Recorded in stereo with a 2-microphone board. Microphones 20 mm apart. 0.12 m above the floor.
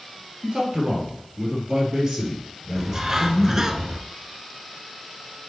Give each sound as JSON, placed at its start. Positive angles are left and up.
{"t": 0.4, "sound": "a man speaking", "side_deg": -40, "distance_m": 2.5}
{"t": 2.8, "sound": "a bird", "side_deg": -30, "distance_m": 0.7}